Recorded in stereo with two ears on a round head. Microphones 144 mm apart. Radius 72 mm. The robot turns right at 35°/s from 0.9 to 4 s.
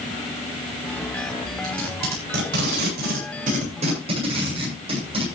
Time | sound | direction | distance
1.6 | tape being pulled | 60° right (ahead or behind) | 8 m